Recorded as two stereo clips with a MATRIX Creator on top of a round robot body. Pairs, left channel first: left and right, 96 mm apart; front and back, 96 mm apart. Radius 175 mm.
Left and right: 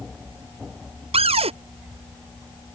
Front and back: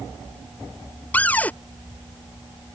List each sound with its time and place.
1.1 s a cupboard door: 75° right